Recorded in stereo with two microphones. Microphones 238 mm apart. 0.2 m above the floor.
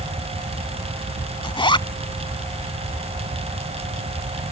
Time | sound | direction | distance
1.4 | a zipper | 20° left (ahead or behind) | ?